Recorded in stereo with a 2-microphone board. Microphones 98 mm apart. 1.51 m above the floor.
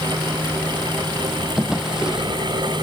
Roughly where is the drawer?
Centre.